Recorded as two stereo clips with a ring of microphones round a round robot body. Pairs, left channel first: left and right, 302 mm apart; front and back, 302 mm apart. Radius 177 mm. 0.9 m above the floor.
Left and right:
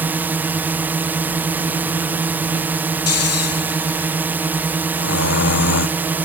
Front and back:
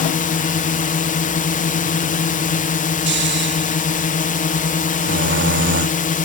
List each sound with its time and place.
0.0 s a drone: 15° right
3.1 s snoring: 125° left